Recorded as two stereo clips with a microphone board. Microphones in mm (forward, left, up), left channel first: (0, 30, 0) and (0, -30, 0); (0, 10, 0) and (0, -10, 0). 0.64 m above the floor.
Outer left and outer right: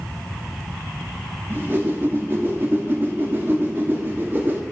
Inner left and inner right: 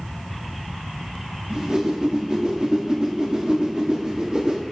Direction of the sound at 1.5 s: 35° right (ahead or behind).